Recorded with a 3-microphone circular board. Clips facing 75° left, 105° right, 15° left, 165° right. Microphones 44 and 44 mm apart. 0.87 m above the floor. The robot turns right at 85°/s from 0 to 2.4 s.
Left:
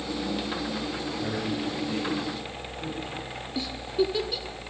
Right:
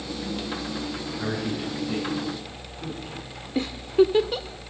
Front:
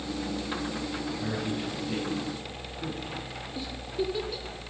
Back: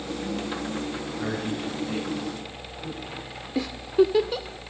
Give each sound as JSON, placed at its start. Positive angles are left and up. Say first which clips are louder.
{"t": 1.2, "sound": "a man speaking", "louder": "right 2 dB, back 5 dB", "azimuth_deg": -120, "distance_m": 9.5}
{"t": 3.5, "sound": "a giggle", "louder": "right 7 dB, back 12 dB", "azimuth_deg": -150, "distance_m": 1.2}